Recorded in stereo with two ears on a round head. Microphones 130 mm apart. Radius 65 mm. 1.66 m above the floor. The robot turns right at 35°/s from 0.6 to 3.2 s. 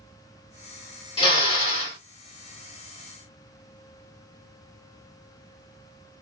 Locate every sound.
1.2 s a drill: 35° left (ahead or behind), 1.7 m; by 2.0 s 50° left (ahead or behind), 1.7 m